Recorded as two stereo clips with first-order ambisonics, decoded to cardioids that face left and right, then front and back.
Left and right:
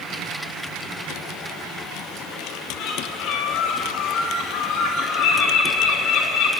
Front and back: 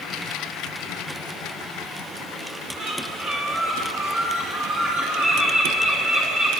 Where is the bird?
120° left, 2.5 m.